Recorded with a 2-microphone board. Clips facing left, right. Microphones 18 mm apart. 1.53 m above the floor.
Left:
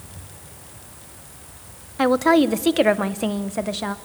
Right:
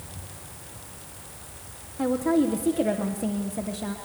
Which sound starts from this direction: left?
A woman speaking, at 2.0 s.